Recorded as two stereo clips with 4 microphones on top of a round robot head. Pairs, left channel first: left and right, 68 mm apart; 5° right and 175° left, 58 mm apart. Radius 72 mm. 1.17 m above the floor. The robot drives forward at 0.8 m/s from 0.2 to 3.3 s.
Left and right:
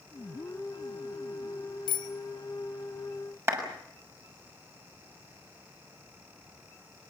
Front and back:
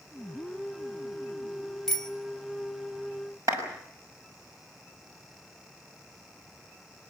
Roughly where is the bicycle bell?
Left.